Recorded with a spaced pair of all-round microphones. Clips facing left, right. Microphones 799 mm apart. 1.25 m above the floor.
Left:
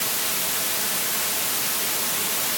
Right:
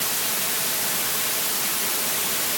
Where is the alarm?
No alarm in this recording.